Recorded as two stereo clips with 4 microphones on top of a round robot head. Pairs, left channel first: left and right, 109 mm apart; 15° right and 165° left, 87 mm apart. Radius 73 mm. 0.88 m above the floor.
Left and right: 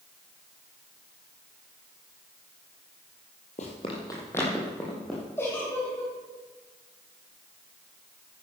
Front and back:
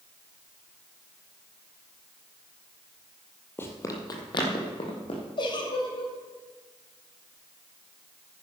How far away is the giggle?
About 2.5 m.